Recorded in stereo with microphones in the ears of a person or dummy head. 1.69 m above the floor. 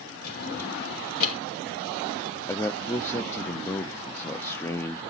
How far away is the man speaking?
About 0.6 m.